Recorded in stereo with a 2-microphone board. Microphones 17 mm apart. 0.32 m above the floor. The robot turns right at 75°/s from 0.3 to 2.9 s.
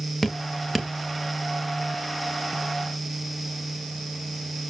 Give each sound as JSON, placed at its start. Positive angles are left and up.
{"t": 0.2, "sound": "dripping", "side_deg": 15, "distance_m": 1.5}